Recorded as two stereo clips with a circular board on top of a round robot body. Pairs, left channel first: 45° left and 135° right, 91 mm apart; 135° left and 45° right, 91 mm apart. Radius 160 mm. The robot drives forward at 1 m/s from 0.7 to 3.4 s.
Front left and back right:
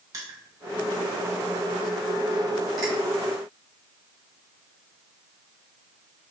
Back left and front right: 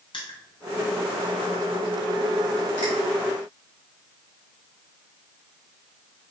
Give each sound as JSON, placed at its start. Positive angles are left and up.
{"t": 0.1, "sound": "crushing", "azimuth_deg": 170, "distance_m": 2.0}